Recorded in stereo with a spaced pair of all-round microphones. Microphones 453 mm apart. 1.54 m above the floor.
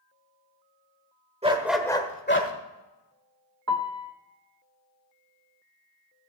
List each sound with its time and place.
1.4 s a dog barking: 15° right (ahead or behind), 1.4 m; by 2.5 s 30° left (ahead or behind), 1.5 m
3.7 s a piano: 40° right (ahead or behind), 0.9 m